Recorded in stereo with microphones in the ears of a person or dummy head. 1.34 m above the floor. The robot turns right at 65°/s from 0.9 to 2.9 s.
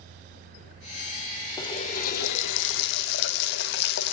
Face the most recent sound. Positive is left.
turn(degrees=110)